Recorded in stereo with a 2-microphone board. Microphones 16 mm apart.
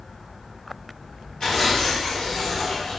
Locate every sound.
1.4 s tearing paper: 40° left (ahead or behind), 1.1 m